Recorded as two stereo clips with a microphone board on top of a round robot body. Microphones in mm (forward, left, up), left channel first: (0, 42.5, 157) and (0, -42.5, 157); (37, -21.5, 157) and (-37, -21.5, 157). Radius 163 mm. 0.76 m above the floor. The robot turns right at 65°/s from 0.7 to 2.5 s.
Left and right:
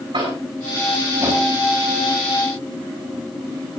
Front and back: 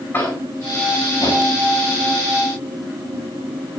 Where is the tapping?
65° right, 8 m; by 1.5 s 15° right, 8 m.